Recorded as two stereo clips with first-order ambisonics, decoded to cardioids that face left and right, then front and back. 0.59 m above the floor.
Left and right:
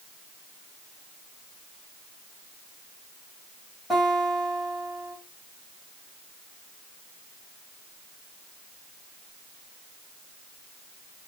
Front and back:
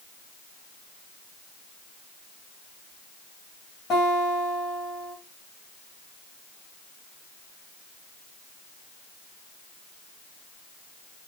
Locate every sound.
3.9 s a guitar: 15° left, 1.4 m